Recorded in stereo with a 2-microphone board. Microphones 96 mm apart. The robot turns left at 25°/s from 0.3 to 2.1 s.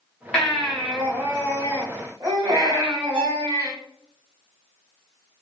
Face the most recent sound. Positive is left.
turn(degrees=-50)  # may be behind; listen again after turning